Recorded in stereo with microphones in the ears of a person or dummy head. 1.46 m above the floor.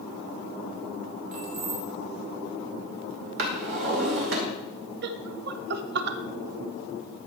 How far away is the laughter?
About 0.5 m.